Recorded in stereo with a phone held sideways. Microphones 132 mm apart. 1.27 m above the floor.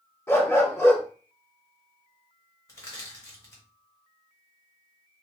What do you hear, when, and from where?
0.3 s a dog barking: 20° left (ahead or behind), 1.0 m
2.7 s crushing: 25° left (ahead or behind), 1.4 m